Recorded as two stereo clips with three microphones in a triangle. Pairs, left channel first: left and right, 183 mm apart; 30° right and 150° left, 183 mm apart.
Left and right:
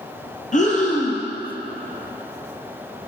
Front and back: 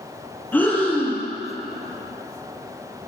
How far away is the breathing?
About 1.7 m.